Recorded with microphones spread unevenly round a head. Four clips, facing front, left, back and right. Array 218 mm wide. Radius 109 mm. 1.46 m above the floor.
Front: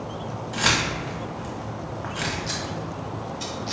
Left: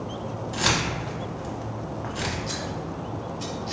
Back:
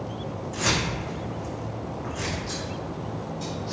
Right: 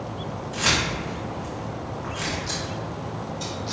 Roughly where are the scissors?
Ahead.